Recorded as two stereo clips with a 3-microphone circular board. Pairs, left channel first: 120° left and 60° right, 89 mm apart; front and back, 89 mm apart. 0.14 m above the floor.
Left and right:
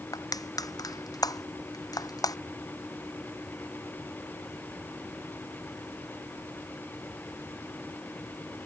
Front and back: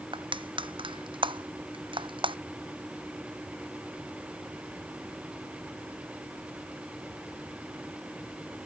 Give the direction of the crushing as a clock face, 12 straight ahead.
7 o'clock.